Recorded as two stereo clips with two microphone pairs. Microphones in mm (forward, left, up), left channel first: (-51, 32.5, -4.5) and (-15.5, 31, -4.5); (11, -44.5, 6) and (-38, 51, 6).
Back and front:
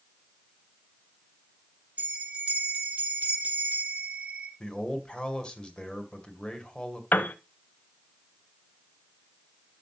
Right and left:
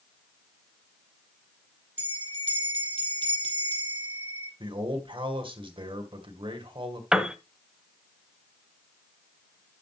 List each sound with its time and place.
2.0 s a bell: 55° right, 3.5 m
4.6 s a man speaking: 120° left, 2 m
7.1 s a piano: 160° right, 0.9 m